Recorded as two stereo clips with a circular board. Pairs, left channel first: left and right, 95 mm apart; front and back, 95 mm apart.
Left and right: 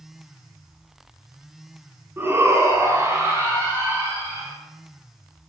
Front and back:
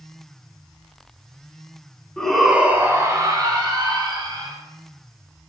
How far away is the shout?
About 1.2 m.